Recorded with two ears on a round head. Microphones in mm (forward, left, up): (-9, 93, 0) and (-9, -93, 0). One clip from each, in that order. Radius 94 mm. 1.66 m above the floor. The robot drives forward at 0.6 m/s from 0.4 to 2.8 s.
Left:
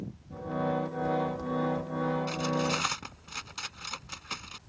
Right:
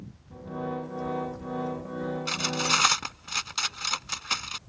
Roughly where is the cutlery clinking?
Right.